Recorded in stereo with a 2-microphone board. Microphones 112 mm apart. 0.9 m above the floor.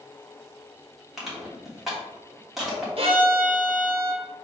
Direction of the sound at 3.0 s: 55° right (ahead or behind).